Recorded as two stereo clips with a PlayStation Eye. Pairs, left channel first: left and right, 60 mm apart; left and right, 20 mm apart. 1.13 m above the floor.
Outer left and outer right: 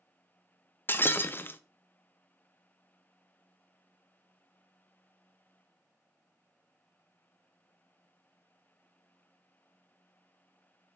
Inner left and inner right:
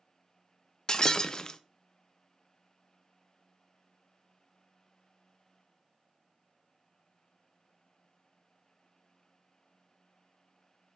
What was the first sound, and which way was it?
Breaking glass, 35° left (ahead or behind).